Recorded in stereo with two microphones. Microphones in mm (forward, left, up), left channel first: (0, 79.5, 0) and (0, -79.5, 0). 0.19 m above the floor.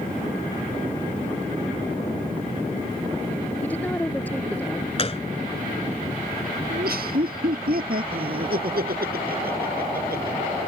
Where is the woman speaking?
10° left (ahead or behind).